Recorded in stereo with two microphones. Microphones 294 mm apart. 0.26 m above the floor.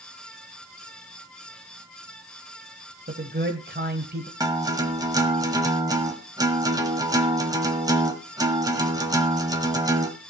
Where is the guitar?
10° right (ahead or behind), 1.3 m.